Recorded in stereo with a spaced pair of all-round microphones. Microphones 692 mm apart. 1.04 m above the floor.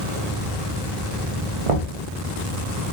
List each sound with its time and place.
1.7 s knocking: 50° right (ahead or behind), 0.8 m